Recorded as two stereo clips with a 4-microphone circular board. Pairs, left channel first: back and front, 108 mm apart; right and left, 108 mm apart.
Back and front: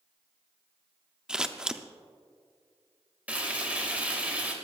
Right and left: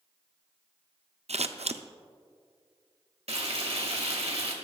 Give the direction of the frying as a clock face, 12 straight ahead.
9 o'clock.